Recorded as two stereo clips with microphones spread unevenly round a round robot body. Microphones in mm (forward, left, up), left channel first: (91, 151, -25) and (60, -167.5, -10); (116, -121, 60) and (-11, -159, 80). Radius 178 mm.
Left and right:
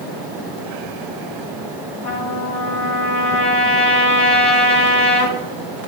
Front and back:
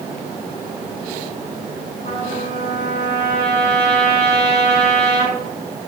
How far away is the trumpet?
About 1.8 m.